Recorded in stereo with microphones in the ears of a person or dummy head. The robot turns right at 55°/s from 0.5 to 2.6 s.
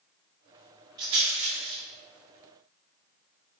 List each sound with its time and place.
1.0 s a rattle: 25° right (ahead or behind), 1.2 m; by 1.8 s 70° right (ahead or behind), 1.2 m